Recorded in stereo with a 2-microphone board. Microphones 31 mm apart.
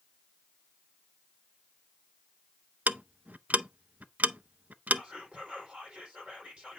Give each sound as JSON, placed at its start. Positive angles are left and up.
{"t": 2.9, "sound": "ticking", "side_deg": -55, "distance_m": 0.5}
{"t": 4.9, "sound": "whispering", "side_deg": -35, "distance_m": 5.5}